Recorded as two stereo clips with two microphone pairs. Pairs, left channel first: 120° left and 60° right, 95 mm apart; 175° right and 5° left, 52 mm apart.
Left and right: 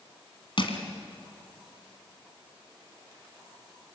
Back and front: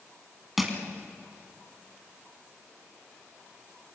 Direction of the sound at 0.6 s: 90° left.